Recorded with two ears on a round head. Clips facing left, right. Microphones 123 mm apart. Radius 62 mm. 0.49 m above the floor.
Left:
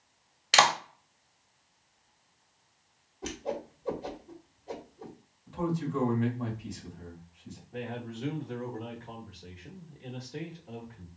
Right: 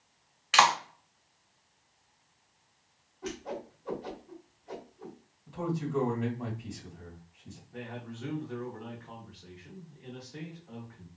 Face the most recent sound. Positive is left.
turn(degrees=25)  # may be behind; listen again after turning